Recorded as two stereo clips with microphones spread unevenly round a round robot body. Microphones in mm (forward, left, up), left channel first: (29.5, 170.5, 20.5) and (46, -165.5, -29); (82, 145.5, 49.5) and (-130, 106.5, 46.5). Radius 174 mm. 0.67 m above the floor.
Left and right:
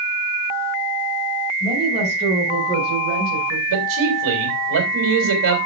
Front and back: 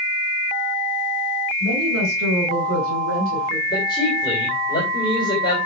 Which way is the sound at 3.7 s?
65° right.